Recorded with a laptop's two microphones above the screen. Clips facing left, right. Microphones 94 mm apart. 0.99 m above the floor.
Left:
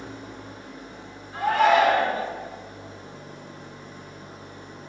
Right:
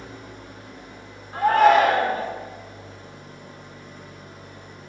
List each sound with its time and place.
0.0 s an engine running: 25° left (ahead or behind), 1.1 m
1.3 s a shout: 45° right (ahead or behind), 1.5 m